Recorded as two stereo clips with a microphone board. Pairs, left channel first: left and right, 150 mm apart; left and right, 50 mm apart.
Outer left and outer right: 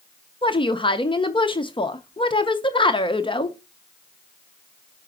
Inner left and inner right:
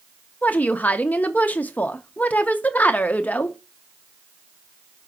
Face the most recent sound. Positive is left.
turn(degrees=30)  # may be behind; listen again after turning